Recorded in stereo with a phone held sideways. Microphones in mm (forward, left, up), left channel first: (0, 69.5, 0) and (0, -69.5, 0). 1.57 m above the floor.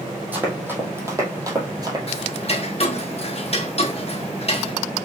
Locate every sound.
0.3 s running footsteps: 10° right (ahead or behind), 2.5 m; by 2.0 s 30° right (ahead or behind), 1.9 m
2.1 s ticking: 45° left (ahead or behind), 1.0 m